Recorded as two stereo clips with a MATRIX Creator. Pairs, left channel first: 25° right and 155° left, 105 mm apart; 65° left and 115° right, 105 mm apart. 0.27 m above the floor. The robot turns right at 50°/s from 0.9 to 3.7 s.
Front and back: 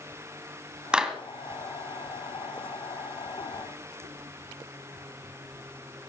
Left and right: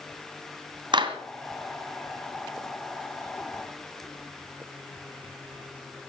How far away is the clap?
About 1.9 m.